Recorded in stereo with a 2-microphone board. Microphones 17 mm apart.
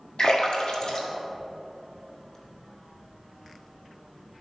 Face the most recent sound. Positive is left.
turn(degrees=70)  # may be behind; listen again after turning